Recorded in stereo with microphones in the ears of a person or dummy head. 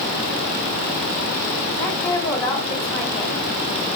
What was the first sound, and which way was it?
A woman speaking, 20° left (ahead or behind).